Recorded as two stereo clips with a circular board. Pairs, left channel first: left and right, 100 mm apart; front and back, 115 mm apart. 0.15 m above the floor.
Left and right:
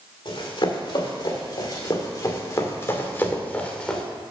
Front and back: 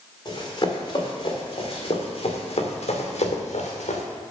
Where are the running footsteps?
55° left, 3.5 m; by 4.0 s 5° left, 2 m.